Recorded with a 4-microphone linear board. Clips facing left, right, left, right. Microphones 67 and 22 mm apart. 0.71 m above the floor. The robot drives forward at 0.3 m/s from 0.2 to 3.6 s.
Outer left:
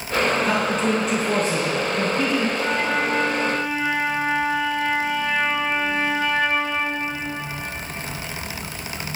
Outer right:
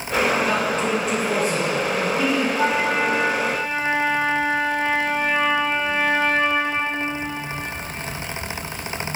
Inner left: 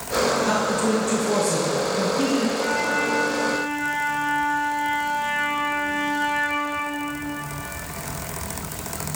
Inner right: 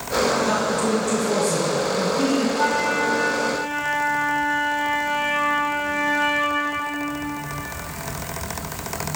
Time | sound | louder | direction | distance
0.4 | a man speaking | outer left 1 dB, even | 5° left (ahead or behind) | 1.5 m
2.6 | a flute | outer right 2 dB, inner right 2 dB | 65° right (ahead or behind) | 2.0 m